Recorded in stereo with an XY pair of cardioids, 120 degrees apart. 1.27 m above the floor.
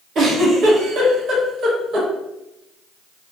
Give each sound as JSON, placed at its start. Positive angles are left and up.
{"t": 0.1, "sound": "a giggle", "azimuth_deg": -55, "distance_m": 1.3}